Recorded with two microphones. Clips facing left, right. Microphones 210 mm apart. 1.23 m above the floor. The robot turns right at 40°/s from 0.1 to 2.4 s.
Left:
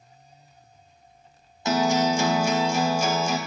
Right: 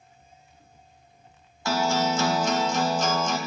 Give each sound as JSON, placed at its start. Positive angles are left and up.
{"t": 1.6, "sound": "a guitar", "side_deg": 20, "distance_m": 0.6}